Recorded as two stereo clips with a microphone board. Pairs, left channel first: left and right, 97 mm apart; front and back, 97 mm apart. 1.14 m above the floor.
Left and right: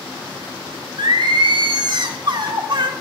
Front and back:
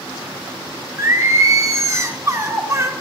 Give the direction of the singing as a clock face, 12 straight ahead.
4 o'clock.